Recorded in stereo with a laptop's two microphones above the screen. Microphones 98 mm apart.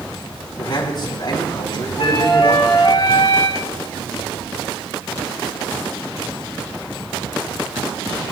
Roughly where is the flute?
Left.